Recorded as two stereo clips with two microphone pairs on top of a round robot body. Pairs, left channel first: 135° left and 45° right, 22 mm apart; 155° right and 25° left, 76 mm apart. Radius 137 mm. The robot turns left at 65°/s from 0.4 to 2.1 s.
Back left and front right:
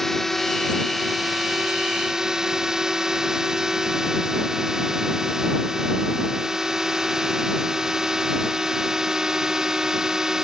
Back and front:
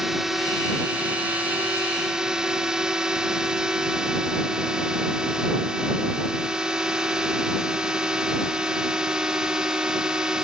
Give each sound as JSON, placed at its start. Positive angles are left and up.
{"t": 0.0, "sound": "a drone", "azimuth_deg": 90}